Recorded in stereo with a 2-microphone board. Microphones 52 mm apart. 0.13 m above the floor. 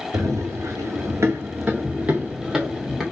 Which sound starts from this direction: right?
Running footsteps, at 0.1 s.